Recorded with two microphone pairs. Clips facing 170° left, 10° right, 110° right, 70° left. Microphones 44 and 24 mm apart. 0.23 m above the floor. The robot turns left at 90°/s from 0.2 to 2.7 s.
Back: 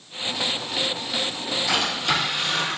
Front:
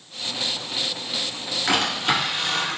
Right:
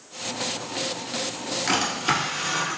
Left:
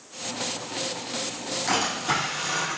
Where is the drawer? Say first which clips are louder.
Front 2 dB, right 2 dB; 35° right, 1.5 m; by 2.8 s 130° right, 1.5 m.